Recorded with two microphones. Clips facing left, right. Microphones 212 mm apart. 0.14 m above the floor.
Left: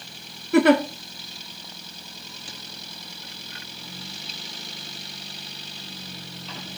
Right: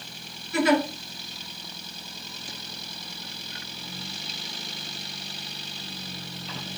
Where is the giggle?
60° left (ahead or behind), 0.5 m.